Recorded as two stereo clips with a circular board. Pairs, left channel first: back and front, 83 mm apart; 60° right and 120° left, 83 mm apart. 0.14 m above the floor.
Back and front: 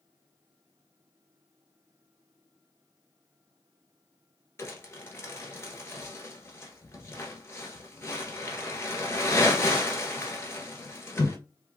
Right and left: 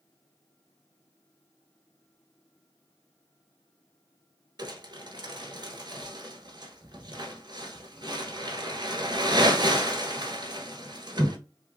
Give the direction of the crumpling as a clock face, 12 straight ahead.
8 o'clock.